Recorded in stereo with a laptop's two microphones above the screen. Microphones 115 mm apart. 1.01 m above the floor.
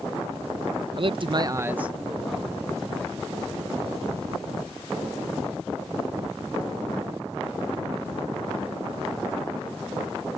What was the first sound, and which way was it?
A man speaking, 45° right (ahead or behind).